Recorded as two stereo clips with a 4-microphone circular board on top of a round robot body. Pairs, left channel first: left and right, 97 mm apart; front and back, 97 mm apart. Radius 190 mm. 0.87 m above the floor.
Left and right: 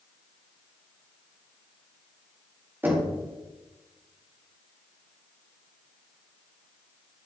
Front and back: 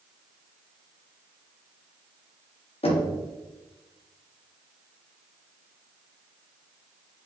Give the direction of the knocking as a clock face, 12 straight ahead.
1 o'clock.